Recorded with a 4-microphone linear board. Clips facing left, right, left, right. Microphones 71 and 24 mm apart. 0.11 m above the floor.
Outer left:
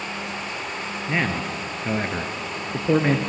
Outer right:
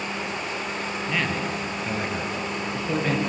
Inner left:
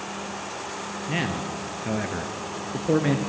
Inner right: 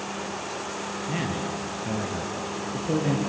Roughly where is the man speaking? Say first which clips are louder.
Outer left 3 dB, inner left 3 dB; left.